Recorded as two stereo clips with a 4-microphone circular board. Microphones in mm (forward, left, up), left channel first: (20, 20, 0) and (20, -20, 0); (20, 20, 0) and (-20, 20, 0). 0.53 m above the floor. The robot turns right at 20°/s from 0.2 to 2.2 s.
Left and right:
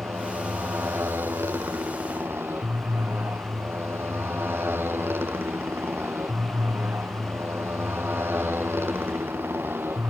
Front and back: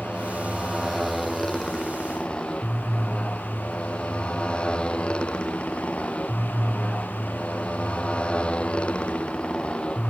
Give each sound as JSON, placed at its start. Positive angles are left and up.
{"t": 0.0, "sound": "a motorcycle", "azimuth_deg": -105}